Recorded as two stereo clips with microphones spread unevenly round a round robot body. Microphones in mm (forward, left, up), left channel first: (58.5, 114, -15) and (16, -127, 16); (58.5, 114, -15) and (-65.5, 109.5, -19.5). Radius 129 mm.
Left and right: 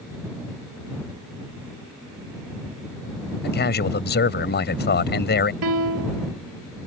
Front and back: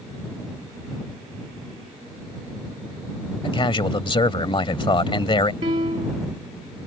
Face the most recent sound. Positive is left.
turn(degrees=-115)